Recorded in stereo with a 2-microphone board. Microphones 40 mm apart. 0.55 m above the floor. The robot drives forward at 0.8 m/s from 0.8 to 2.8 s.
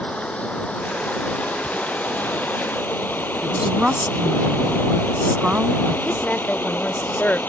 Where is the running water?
35° left (ahead or behind); by 7.5 s 60° left (ahead or behind).